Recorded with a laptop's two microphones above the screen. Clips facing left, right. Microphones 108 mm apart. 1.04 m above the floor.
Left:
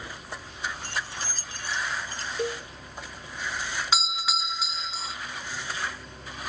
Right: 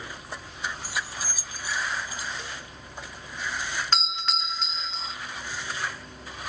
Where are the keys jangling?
10° right (ahead or behind).